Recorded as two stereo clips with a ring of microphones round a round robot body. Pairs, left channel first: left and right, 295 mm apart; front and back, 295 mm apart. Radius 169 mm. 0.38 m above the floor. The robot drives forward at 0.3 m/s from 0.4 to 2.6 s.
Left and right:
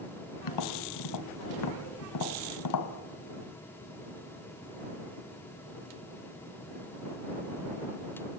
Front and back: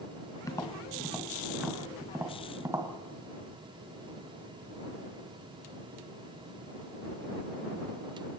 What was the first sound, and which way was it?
Tapping, 80° left.